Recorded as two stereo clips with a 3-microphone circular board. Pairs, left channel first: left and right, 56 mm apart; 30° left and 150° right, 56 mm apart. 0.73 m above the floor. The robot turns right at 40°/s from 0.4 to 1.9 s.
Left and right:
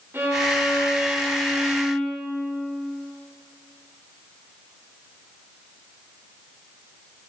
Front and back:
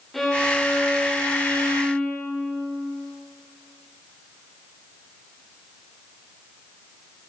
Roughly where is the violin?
Ahead right.